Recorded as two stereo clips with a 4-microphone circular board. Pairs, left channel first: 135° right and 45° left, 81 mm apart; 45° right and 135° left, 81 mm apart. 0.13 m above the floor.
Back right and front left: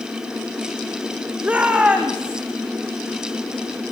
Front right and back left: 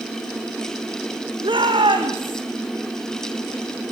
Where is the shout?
120° left, 6.5 m; by 2.4 s 125° left, 6 m.